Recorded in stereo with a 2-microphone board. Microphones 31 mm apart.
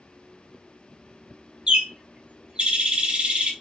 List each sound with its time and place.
1.7 s a bird: 35° right (ahead or behind), 1.0 m